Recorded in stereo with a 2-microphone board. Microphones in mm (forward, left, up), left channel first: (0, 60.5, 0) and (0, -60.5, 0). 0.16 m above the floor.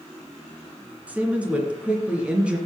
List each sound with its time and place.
1.1 s a woman speaking: 10° right (ahead or behind), 2 m